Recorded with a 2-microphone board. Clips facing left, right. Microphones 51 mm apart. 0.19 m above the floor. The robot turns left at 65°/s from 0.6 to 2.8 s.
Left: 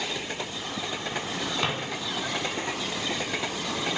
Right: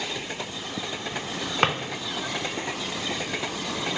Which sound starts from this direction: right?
A drawer, at 1.6 s.